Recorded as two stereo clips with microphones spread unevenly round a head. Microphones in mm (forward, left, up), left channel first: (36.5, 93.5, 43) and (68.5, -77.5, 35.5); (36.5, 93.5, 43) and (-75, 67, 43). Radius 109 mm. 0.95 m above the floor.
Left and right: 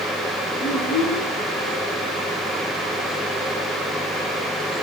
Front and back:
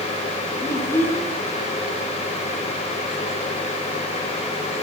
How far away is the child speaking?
About 7.5 m.